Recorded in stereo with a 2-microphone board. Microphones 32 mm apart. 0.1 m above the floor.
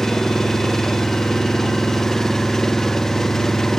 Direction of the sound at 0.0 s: 15° left (ahead or behind).